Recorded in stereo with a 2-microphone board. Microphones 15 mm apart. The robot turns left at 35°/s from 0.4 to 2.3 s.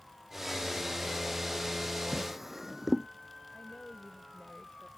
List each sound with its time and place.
2.1 s a drawer: 10° right (ahead or behind); by 3.1 s 15° right (ahead or behind)
3.5 s a woman speaking: 60° left (ahead or behind)